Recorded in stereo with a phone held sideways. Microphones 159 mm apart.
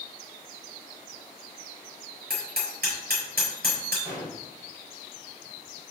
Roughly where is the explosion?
Centre.